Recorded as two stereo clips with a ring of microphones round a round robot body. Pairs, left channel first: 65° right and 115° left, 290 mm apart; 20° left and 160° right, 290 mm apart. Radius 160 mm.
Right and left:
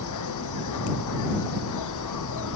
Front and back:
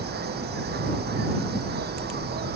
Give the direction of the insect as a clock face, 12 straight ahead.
3 o'clock.